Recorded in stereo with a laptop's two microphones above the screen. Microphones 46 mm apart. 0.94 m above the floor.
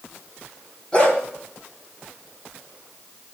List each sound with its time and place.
0.9 s a dog barking: 20° left (ahead or behind), 2 m